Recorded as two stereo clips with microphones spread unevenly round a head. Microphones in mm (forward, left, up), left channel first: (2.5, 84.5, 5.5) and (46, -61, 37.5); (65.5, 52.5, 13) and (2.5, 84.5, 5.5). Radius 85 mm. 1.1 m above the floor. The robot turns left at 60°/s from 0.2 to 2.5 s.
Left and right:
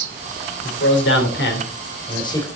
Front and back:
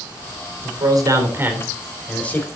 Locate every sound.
0.6 s a man speaking: 140° left, 3 m; by 2.5 s 30° left, 3 m